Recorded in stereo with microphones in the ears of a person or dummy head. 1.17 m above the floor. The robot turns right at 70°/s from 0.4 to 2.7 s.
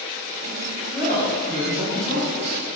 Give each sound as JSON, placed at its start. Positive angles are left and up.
{"t": 0.9, "sound": "a woman speaking", "azimuth_deg": -165, "distance_m": 2.0}